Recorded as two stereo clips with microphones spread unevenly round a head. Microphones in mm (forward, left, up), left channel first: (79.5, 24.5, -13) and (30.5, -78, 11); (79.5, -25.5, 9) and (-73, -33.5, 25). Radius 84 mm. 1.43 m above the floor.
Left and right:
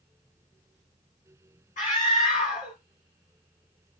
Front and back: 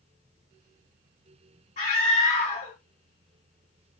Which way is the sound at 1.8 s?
60° left.